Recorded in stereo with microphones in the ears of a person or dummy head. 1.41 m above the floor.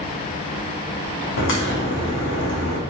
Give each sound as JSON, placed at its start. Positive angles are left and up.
{"t": 1.4, "sound": "a crack", "side_deg": 65, "distance_m": 2.5}